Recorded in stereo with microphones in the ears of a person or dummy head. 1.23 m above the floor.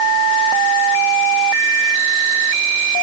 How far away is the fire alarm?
I don't hear a fire alarm.